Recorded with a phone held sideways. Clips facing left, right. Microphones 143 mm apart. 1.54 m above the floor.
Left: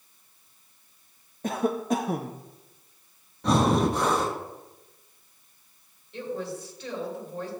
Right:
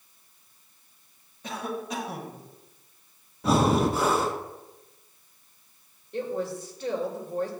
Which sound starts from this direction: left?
A cough, at 1.4 s.